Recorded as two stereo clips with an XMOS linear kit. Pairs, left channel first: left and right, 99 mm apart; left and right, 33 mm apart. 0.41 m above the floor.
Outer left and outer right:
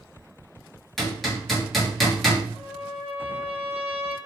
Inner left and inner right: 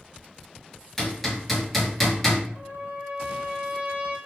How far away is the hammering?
About 1.1 m.